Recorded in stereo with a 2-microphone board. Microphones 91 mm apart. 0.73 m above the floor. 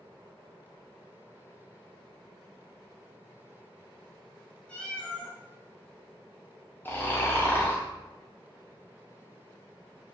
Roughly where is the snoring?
Left.